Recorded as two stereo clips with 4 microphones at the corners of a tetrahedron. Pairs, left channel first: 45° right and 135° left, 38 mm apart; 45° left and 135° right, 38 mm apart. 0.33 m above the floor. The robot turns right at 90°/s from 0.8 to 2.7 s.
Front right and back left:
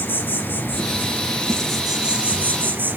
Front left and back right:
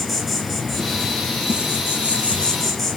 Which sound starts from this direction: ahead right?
An insect, at 0.0 s.